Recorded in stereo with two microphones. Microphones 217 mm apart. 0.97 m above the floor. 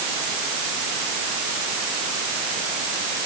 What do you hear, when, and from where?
Only background noise.